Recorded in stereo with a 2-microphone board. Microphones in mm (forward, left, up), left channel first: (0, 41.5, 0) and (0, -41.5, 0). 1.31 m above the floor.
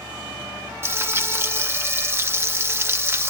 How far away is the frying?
About 1.1 m.